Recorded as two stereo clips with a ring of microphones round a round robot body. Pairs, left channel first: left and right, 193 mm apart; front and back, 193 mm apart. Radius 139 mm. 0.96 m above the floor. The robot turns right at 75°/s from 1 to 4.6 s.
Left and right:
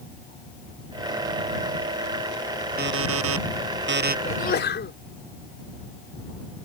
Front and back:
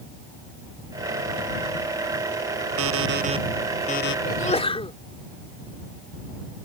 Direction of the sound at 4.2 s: 35° left.